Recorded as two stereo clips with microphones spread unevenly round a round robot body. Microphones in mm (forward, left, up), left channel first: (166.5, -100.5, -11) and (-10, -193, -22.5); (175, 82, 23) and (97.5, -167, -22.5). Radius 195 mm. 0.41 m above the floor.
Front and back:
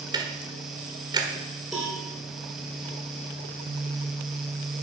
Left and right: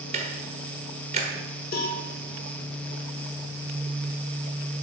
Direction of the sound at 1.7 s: 120° left.